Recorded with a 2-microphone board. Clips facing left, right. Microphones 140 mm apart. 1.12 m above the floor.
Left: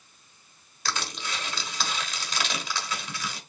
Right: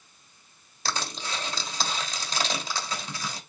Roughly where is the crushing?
Right.